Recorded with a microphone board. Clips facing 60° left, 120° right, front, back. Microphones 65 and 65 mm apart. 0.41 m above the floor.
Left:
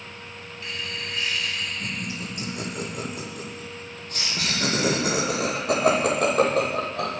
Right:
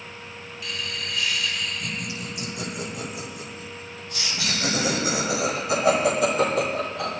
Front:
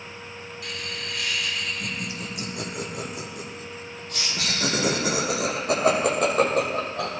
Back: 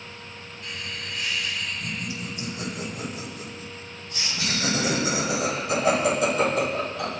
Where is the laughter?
5° left, 9 m; by 7.2 s 40° left, 12.5 m.